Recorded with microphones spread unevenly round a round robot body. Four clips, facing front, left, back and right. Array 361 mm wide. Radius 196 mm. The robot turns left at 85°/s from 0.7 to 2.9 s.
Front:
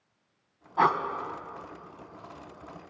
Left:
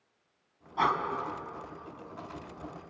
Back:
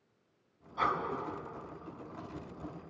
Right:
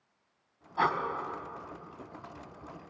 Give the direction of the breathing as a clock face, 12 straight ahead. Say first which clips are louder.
Left 1 dB, front 8 dB; 12 o'clock.